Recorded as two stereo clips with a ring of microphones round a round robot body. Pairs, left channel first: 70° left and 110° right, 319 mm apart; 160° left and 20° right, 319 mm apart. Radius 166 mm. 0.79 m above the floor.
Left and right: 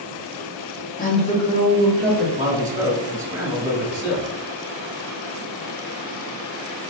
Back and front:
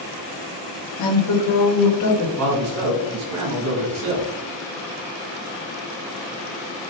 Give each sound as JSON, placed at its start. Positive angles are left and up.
{"t": 1.0, "sound": "a woman speaking", "azimuth_deg": 130, "distance_m": 1.0}
{"t": 2.4, "sound": "a man speaking", "azimuth_deg": -35, "distance_m": 2.0}